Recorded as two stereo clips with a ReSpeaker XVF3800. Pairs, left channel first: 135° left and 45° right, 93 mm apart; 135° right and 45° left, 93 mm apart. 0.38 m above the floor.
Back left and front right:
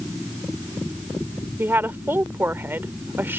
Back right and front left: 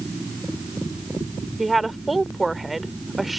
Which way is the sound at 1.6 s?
40° right.